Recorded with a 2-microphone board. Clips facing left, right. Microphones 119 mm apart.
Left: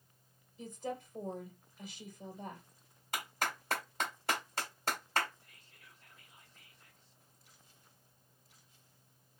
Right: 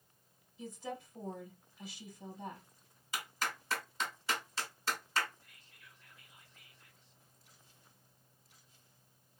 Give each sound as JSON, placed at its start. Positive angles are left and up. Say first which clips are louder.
{"t": 0.6, "sound": "a woman speaking", "louder": "left 2 dB", "side_deg": 50, "distance_m": 2.5}
{"t": 3.1, "sound": "a clap", "louder": "left 2 dB", "side_deg": 55, "distance_m": 1.7}
{"t": 5.4, "sound": "whispering", "louder": "even", "side_deg": 35, "distance_m": 2.0}